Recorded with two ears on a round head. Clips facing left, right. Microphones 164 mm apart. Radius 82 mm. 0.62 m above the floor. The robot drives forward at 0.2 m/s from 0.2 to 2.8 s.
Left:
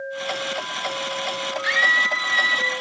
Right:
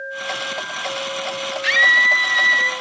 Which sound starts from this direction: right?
A scream, at 1.6 s.